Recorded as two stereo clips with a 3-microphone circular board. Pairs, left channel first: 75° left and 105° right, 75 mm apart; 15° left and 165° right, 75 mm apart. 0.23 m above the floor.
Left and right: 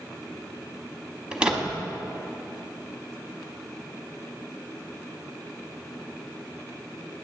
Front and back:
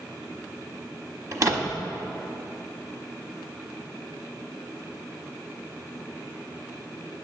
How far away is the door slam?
About 0.9 m.